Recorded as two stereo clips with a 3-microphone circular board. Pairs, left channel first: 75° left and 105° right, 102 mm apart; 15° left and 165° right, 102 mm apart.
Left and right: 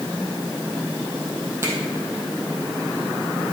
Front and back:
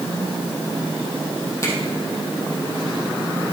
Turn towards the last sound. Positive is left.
turn(degrees=-45)